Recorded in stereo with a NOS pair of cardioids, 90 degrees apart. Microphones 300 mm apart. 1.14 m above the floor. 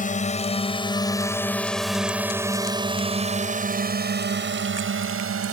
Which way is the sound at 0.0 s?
25° left.